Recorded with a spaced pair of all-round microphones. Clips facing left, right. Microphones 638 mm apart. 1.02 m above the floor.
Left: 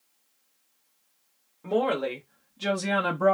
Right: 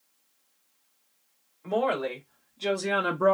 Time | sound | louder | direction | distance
1.6 | a woman speaking | left 2 dB | 60° left (ahead or behind) | 1.3 m